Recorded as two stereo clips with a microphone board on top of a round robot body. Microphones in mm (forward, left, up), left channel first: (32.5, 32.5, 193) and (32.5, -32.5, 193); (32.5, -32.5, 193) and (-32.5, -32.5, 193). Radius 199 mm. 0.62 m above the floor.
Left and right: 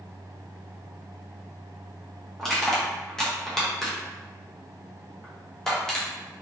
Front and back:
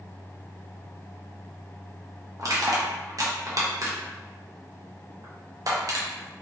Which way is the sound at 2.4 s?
170° left.